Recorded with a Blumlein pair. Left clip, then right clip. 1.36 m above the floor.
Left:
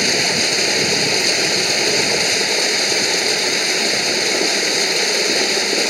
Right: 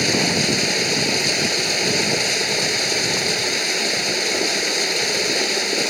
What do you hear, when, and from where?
0.0 s running water: 10° left